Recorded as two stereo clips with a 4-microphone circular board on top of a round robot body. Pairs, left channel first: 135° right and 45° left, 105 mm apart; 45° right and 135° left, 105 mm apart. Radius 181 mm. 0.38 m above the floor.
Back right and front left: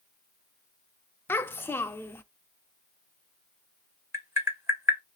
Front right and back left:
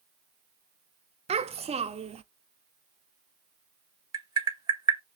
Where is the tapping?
100° left, 1.6 m.